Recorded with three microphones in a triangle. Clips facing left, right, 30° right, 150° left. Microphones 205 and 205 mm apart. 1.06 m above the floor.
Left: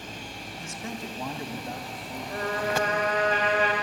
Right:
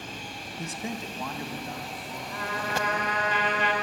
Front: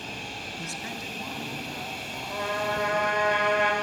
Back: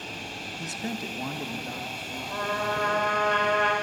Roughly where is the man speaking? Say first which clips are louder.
Right 3 dB, back 7 dB; behind right.